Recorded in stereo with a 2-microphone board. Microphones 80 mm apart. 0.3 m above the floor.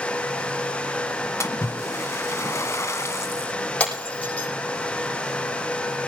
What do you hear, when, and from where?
1.4 s a splash: 40° left (ahead or behind), 1.5 m
3.8 s breaking glass: 15° left (ahead or behind), 6 m